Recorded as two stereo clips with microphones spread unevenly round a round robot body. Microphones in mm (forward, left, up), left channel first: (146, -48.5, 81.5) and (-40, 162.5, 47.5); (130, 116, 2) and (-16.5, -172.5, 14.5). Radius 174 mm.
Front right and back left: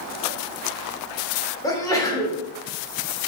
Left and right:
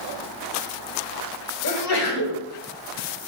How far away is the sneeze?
About 1.8 m.